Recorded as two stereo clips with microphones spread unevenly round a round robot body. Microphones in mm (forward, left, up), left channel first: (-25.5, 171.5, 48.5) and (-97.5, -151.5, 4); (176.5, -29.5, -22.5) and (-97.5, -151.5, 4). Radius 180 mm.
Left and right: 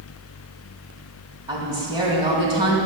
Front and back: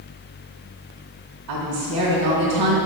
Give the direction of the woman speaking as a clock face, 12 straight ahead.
6 o'clock.